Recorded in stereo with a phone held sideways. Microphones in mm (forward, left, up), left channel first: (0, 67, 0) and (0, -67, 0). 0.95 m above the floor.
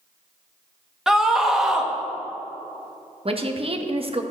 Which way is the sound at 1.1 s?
5° right (ahead or behind).